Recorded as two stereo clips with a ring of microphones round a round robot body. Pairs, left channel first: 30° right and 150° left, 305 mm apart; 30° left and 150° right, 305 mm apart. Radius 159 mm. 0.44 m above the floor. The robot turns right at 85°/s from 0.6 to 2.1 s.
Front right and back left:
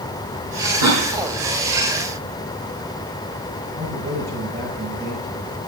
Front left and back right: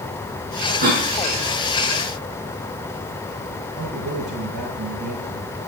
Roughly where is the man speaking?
Behind right.